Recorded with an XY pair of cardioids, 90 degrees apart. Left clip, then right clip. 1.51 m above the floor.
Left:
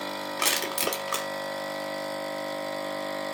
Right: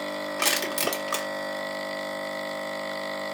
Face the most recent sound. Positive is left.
turn(degrees=-5)